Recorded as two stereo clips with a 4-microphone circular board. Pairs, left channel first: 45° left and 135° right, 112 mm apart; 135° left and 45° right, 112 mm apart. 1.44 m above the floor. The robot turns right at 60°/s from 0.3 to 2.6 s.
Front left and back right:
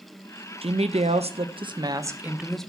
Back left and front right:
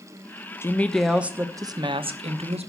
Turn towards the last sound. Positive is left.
turn(degrees=-40)